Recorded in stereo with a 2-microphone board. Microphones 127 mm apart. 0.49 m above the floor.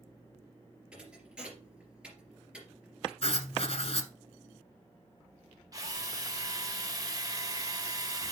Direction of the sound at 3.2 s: 55° left (ahead or behind).